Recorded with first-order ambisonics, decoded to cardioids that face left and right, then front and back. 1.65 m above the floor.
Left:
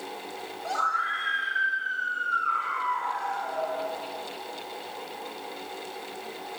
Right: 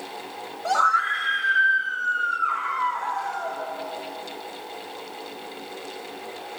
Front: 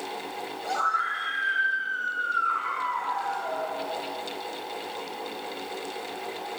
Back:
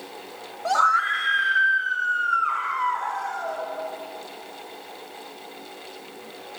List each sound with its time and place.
0.7 s a scream: 140° right, 0.6 m; by 3.7 s 165° right, 2.5 m